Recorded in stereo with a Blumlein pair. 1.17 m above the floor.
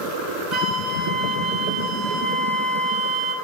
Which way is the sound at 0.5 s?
10° right.